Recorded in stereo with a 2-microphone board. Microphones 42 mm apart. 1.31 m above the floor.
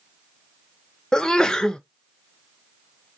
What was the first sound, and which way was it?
A sneeze, 15° left (ahead or behind).